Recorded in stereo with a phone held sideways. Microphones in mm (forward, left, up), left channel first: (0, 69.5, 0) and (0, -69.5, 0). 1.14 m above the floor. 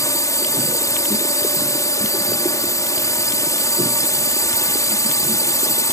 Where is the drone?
25° left (ahead or behind).